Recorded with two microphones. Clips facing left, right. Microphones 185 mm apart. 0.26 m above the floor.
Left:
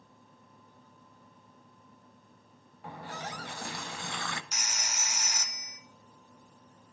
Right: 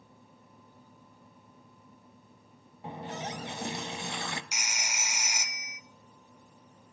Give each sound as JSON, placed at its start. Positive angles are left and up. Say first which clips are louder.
{"t": 2.8, "sound": "a running tap", "louder": "right 3 dB", "side_deg": -20, "distance_m": 0.8}
{"t": 4.5, "sound": "a phone ringing", "louder": "right 1 dB", "side_deg": -10, "distance_m": 0.8}